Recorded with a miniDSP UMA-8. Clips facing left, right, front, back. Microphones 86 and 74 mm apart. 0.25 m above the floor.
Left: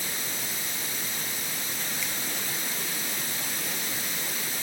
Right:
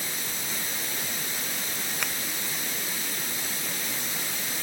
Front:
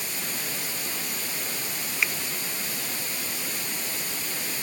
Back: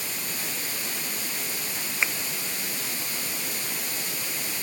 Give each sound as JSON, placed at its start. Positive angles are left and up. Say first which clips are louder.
{"t": 2.0, "sound": "a finger snap", "louder": "right 6 dB, even", "azimuth_deg": -115}